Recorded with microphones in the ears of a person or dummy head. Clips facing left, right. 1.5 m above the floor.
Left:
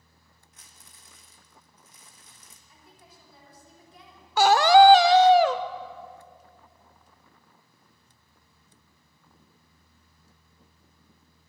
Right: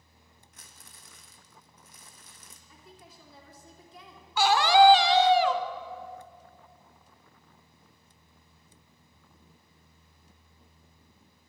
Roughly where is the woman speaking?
Right.